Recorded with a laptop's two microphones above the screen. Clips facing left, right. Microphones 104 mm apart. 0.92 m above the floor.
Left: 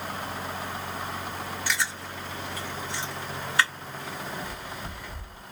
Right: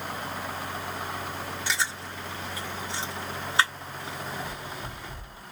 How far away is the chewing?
About 2.5 m.